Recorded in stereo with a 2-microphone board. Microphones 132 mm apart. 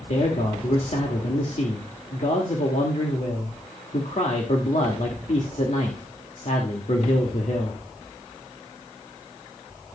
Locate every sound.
0.1 s a man speaking: 60° left (ahead or behind), 2.0 m